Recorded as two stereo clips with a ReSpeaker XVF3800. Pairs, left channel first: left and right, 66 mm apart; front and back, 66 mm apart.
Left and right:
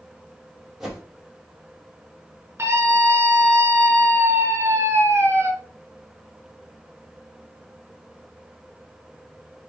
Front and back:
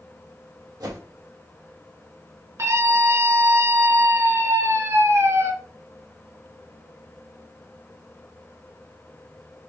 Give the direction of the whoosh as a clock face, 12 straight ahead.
6 o'clock.